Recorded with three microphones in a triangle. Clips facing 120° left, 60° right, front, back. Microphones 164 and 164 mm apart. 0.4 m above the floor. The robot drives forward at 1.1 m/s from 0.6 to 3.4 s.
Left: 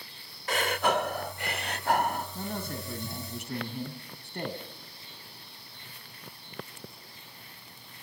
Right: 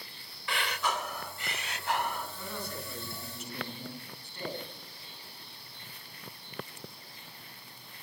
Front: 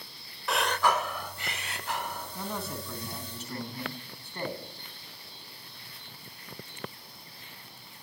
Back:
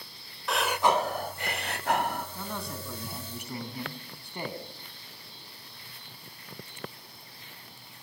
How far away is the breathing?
About 0.7 m.